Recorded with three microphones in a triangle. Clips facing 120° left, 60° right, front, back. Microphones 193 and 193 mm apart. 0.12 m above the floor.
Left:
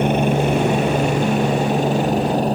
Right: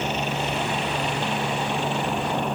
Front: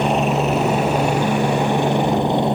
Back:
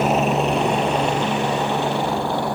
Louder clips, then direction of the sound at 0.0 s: Left 10 dB, front 1 dB; 95° left.